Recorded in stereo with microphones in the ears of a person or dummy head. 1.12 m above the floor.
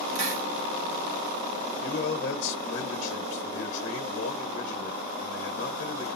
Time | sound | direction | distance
0.1 | a hiss | 85° right | 2 m
1.8 | a man speaking | 60° left (ahead or behind) | 1.4 m